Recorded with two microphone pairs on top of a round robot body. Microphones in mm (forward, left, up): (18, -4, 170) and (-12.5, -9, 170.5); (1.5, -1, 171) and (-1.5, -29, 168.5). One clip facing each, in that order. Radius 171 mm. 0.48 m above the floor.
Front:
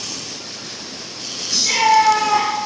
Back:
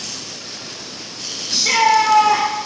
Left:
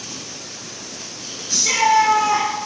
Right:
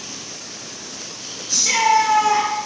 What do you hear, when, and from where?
1.5 s a shout: 170° left, 1.0 m